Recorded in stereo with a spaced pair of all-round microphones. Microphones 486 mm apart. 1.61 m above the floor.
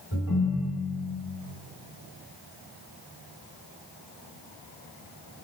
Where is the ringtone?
50° left (ahead or behind), 3.5 m.